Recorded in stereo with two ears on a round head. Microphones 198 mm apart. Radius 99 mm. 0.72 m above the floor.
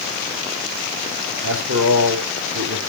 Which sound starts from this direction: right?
A man speaking, at 1.4 s.